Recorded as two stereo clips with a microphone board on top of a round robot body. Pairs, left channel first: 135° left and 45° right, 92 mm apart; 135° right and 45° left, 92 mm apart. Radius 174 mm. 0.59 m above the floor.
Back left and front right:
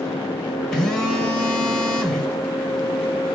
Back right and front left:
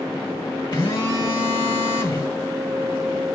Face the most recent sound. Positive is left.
turn(degrees=-145)